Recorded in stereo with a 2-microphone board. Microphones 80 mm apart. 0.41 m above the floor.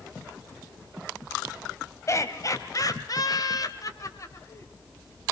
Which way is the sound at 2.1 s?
40° left (ahead or behind).